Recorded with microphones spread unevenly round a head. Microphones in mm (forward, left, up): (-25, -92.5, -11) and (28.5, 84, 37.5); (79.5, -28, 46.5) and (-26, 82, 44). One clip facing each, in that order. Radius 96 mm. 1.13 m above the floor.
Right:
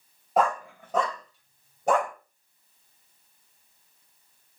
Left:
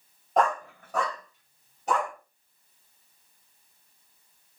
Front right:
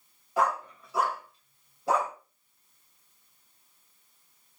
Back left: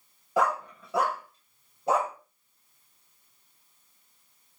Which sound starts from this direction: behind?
A dog barking, at 0.4 s.